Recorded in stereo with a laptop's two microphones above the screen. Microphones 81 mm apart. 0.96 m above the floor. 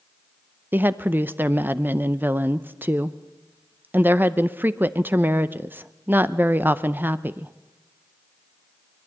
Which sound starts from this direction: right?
A woman speaking, at 0.7 s.